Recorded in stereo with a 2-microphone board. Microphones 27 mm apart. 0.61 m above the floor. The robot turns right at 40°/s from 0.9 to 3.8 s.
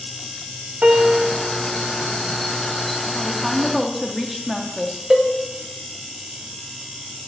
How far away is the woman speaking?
About 0.8 m.